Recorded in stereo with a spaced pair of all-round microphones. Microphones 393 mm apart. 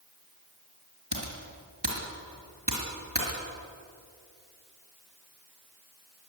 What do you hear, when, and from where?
1.1 s typing on a keyboard: 80° right, 5 m